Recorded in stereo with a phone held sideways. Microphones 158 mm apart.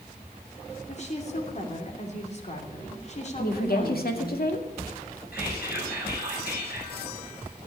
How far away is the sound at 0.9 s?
About 2.5 m.